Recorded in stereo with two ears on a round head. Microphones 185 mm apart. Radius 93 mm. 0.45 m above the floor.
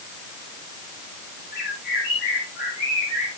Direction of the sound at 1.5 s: 45° left (ahead or behind).